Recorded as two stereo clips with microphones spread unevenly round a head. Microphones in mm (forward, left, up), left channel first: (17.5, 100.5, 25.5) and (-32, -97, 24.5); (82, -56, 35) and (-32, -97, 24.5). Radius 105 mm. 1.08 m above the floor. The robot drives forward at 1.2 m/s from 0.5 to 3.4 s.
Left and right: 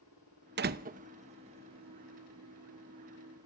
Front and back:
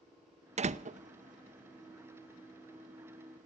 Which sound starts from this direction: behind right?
A door slam, at 0.6 s.